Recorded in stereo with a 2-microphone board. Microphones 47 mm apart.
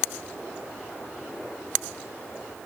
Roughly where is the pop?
I don't hear a pop.